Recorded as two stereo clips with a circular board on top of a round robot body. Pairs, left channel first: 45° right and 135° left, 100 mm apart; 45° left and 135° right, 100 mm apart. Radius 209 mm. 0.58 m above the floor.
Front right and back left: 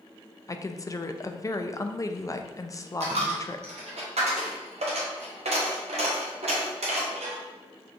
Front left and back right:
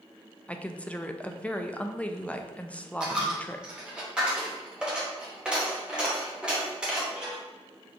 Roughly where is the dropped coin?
Behind left.